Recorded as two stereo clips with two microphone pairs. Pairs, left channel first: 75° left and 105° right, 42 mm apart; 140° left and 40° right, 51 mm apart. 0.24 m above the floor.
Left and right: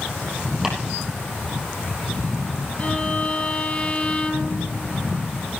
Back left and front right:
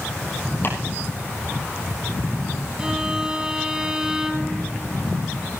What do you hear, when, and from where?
0.6 s chopping: 175° left, 4.5 m
2.8 s a violin: 30° left, 1.4 m